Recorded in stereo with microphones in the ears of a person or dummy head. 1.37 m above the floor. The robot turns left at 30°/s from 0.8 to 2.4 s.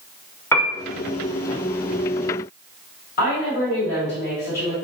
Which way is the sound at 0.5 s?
15° left (ahead or behind).